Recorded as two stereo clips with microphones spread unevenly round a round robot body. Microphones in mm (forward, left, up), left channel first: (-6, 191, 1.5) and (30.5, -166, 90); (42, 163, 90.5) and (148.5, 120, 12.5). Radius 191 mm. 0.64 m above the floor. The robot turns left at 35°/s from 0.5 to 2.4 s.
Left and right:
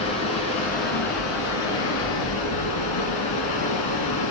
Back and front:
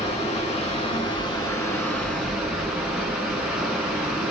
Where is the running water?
130° left, 2.5 m; by 4.3 s 65° left, 2.5 m.